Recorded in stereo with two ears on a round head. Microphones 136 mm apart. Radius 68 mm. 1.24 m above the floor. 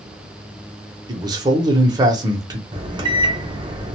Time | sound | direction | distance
1.1 | a man speaking | 25° right (ahead or behind) | 0.8 m
2.7 | a microwave | 30° right (ahead or behind) | 0.6 m